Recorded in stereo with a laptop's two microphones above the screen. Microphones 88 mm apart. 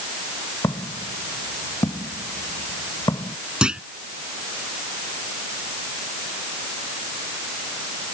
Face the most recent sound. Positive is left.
turn(degrees=-10)  # may be behind; listen again after turning